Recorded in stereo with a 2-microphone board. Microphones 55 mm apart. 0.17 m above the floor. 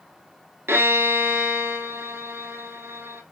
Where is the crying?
I don't hear crying.